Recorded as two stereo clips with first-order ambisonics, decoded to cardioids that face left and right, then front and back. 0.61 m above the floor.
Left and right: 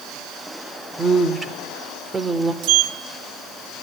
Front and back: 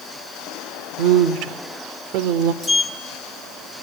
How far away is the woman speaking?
About 1.4 m.